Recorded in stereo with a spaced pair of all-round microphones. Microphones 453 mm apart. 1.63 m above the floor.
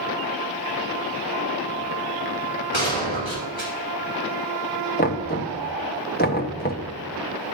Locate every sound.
2.7 s a gunshot: 80° right, 5.5 m
5.0 s knocking: 20° left (ahead or behind), 1.2 m